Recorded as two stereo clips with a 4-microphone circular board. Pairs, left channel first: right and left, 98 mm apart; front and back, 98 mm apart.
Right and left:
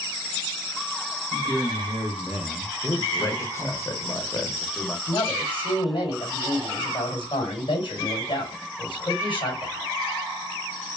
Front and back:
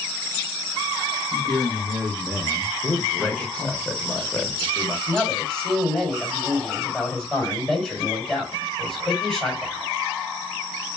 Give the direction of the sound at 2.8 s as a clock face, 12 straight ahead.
2 o'clock.